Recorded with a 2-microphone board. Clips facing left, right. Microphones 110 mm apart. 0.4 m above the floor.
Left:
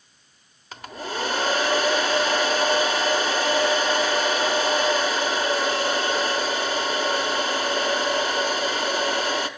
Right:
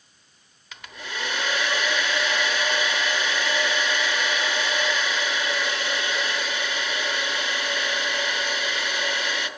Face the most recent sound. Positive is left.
turn(degrees=40)  # may be behind; listen again after turning